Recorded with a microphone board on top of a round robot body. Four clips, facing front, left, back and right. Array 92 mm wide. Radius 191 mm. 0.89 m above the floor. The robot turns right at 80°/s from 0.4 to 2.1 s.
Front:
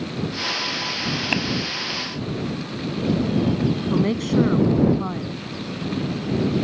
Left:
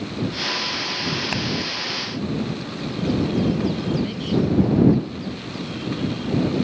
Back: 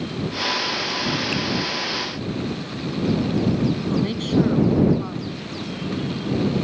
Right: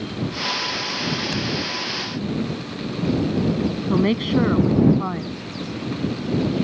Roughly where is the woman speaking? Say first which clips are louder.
Right 4 dB, front 1 dB; right.